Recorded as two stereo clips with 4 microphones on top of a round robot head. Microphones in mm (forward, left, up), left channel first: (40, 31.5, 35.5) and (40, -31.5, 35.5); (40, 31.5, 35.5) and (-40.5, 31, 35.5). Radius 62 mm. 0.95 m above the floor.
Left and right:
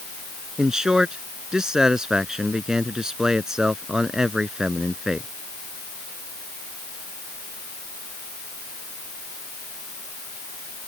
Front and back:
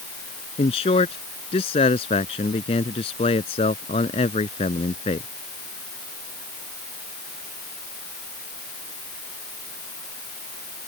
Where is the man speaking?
10° right.